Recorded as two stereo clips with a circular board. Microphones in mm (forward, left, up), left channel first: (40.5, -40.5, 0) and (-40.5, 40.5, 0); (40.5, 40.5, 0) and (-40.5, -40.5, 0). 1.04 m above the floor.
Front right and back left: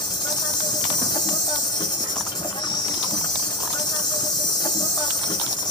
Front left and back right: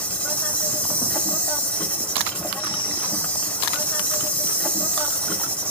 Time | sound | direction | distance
0.0 | an insect | 25° right | 1.0 m